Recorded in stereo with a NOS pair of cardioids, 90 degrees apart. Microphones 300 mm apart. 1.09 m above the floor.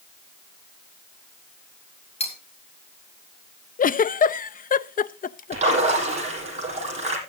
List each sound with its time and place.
2.2 s cutlery clinking: 20° left, 4.5 m
3.8 s a giggle: 30° left, 0.5 m
5.5 s a splash: 20° right, 8 m